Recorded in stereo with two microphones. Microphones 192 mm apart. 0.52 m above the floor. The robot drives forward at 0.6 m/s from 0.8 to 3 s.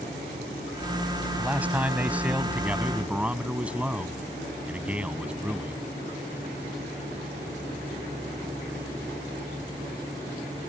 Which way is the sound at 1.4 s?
10° right (ahead or behind).